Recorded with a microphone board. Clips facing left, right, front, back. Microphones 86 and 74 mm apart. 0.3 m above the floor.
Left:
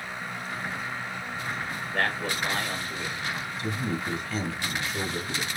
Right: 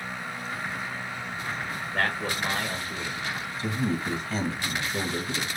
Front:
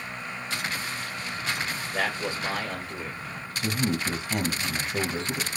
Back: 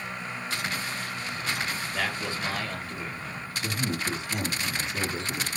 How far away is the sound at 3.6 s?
About 2.0 m.